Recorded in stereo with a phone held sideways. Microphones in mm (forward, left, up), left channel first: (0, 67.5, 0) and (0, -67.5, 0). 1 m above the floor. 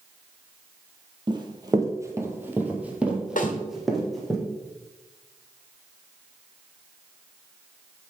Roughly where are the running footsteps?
Right.